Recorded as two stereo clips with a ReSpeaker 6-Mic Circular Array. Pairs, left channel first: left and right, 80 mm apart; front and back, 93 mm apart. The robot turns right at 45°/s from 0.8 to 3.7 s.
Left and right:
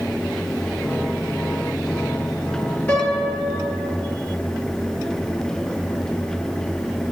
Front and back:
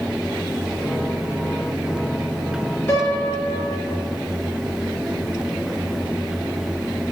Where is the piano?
35° left, 1.9 m; by 3.9 s 75° left, 1.9 m.